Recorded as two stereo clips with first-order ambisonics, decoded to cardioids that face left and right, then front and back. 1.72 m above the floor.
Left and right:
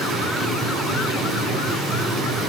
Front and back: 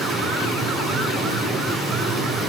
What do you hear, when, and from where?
0.0 s running water: 105° right, 2.5 m